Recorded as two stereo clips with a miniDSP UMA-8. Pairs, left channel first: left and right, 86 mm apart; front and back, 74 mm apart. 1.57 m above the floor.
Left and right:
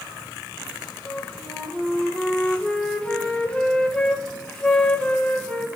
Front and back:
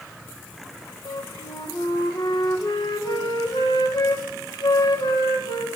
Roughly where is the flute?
Ahead.